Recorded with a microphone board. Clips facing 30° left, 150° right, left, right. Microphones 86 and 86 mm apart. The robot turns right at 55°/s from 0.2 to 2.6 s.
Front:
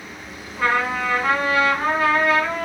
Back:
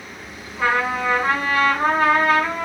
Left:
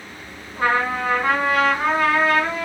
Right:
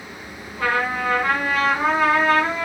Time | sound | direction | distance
0.6 | a trumpet | 125° left | 1.1 m